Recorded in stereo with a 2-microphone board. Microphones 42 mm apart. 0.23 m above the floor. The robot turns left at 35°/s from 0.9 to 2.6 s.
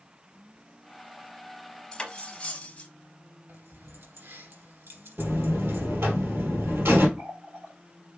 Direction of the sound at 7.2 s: 50° right (ahead or behind).